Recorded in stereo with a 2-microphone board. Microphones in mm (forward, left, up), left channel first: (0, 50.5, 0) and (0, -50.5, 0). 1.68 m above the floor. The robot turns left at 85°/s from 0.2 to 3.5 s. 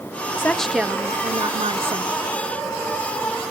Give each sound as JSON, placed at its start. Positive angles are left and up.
{"t": 0.4, "sound": "a woman speaking", "azimuth_deg": 25, "distance_m": 0.8}